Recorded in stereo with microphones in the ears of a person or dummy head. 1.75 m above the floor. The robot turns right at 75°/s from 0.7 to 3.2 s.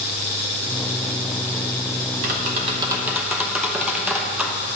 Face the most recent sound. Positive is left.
turn(degrees=5)